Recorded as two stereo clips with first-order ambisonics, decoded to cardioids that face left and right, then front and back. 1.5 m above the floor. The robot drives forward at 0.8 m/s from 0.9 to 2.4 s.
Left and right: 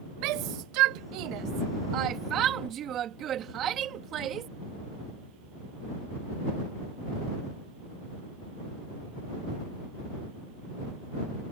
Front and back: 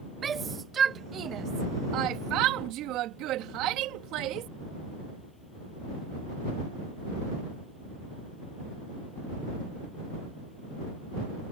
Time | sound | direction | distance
0.2 | a shout | 115° right | ?